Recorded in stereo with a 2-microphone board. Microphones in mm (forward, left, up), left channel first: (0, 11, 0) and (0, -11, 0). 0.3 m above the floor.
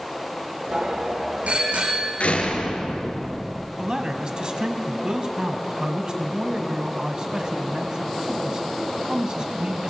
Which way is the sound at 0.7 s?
80° right.